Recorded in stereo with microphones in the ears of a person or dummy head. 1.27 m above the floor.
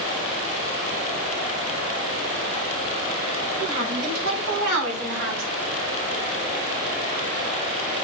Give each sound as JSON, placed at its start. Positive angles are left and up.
{"t": 3.6, "sound": "a woman speaking", "side_deg": -65, "distance_m": 4.0}